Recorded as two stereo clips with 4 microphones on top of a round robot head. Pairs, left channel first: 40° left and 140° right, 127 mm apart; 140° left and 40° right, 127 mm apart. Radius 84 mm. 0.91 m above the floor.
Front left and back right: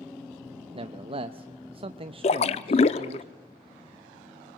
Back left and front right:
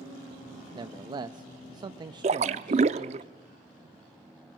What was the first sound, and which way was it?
A man speaking, 95° right.